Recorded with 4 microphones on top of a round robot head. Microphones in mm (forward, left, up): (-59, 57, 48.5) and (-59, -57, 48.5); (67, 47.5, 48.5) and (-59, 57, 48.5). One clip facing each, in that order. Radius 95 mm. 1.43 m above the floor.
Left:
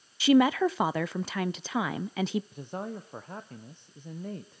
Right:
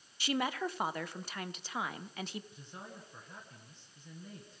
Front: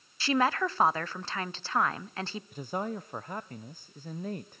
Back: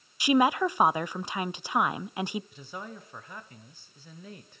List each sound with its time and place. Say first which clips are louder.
0.2 s a woman speaking: left 13 dB, back 4 dB; 100° left, 0.7 m
2.5 s a man speaking: left 13 dB, front 7 dB; 40° left, 1.0 m